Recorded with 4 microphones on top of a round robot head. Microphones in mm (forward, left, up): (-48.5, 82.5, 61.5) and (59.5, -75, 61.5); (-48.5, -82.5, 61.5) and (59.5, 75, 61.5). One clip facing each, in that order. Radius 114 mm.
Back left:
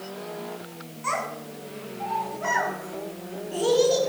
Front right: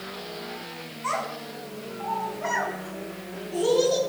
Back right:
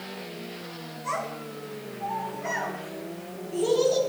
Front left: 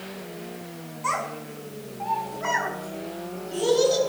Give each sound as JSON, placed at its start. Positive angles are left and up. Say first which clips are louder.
{"t": 1.0, "sound": "a child speaking", "louder": "even, front left 1 dB", "azimuth_deg": 70, "distance_m": 6.0}